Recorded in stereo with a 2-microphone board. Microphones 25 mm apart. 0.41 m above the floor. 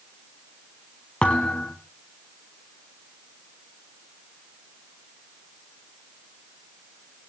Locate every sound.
1.2 s a thud: 50° left (ahead or behind), 2 m